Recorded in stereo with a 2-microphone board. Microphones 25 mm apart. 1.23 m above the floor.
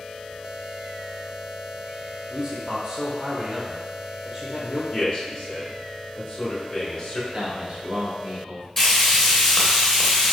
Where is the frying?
10° left (ahead or behind), 0.8 m.